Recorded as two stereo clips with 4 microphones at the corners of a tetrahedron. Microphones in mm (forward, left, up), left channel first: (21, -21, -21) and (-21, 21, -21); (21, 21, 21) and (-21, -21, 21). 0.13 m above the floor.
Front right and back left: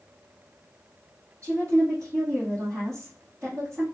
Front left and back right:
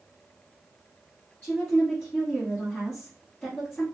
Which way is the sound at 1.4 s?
105° left.